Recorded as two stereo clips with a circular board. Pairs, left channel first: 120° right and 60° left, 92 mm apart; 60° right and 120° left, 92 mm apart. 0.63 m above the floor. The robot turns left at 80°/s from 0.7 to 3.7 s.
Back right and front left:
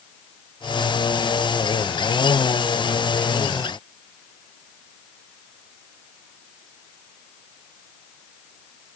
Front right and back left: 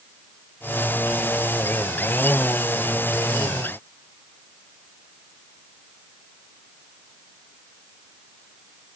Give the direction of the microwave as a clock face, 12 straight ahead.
No microwave in this recording.